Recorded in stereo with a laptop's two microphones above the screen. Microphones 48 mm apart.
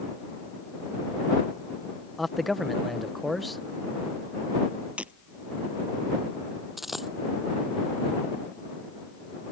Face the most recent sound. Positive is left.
turn(degrees=-5)  # may be behind; listen again after turning